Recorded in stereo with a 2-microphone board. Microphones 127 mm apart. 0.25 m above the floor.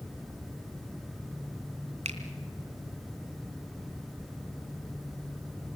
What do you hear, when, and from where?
2.0 s a finger snap: 55° right (ahead or behind), 2.5 m